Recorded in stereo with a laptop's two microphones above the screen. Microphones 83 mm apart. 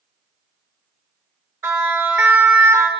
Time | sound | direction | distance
1.6 | a siren | 20° right (ahead or behind) | 5 m